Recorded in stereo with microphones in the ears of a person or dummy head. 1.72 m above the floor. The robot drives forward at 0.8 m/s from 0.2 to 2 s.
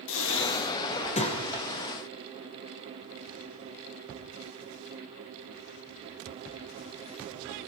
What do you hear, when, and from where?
0.1 s breathing: 65° left (ahead or behind), 0.9 m; by 1.4 s 30° left (ahead or behind), 1.6 m